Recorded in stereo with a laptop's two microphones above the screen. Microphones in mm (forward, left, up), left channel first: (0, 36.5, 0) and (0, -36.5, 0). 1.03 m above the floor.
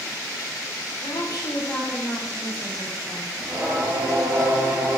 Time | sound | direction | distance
1.0 | a woman speaking | 75° left (ahead or behind) | 0.8 m
3.4 | singing | 30° right (ahead or behind) | 0.7 m